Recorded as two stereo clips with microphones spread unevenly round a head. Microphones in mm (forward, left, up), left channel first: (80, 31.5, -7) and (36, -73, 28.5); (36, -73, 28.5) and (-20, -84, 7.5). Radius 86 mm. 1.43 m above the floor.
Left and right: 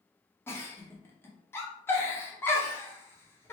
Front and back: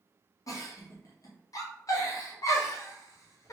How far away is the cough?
No cough in this recording.